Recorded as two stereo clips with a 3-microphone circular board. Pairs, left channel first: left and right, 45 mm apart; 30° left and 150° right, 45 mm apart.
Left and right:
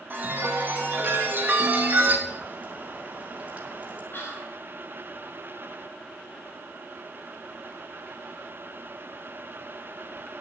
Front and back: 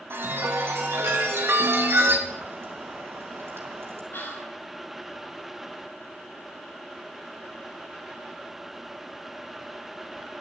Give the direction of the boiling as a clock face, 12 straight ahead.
5 o'clock.